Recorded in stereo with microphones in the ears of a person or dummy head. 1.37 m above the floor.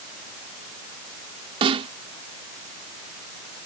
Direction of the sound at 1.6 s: 35° right (ahead or behind).